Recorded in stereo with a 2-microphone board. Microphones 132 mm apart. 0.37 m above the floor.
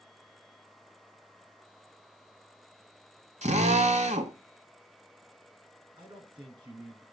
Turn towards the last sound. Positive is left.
turn(degrees=-35)  # may be behind; listen again after turning